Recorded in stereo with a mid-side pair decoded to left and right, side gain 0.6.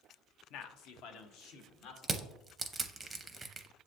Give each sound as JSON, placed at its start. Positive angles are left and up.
{"t": 0.5, "sound": "a man speaking", "azimuth_deg": 70, "distance_m": 0.5}
{"t": 2.0, "sound": "crushing", "azimuth_deg": -20, "distance_m": 0.6}